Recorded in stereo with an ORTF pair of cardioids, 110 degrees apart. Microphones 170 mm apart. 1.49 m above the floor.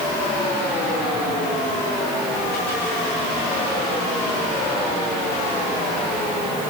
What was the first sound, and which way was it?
Only background noise.